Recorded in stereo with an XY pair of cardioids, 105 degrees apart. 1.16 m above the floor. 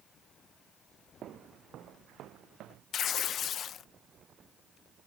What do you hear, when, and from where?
1.2 s footsteps: 65° right; by 2.8 s 80° right
2.9 s tearing paper: 60° left